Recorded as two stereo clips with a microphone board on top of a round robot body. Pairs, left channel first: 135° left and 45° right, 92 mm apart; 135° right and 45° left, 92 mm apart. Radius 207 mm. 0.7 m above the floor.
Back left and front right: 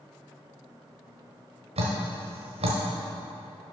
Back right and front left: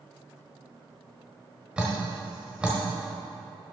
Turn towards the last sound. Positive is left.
turn(degrees=-35)